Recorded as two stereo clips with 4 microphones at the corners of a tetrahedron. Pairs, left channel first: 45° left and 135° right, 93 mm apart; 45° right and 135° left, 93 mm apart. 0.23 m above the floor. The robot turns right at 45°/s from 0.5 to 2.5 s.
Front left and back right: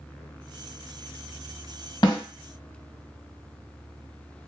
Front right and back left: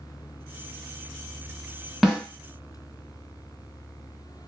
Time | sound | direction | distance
2.0 | a snare drum | 50° left | 1.8 m